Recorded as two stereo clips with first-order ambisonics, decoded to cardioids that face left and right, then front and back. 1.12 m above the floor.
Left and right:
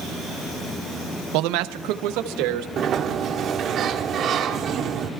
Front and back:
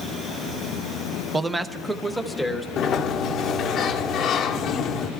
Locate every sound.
1.3 s a man speaking: 105° right, 0.5 m; by 2.7 s 90° right, 1.2 m
2.8 s a sliding door: 45° right, 0.9 m